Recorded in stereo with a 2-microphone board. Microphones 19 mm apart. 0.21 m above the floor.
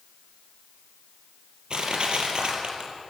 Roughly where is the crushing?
Right.